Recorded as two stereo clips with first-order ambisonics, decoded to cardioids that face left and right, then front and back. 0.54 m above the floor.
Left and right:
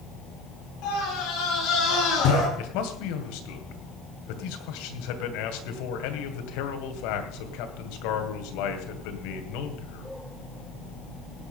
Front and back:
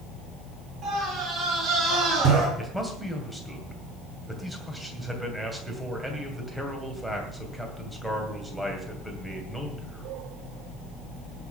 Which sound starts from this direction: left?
A man speaking, at 2.6 s.